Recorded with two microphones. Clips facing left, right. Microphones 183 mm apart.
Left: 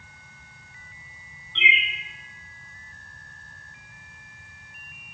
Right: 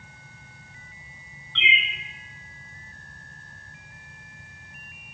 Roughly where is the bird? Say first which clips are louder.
Left 1 dB; centre.